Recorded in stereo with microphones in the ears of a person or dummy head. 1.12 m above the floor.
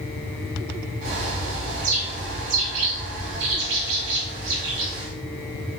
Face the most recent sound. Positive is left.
turn(degrees=-70)  # may be behind; listen again after turning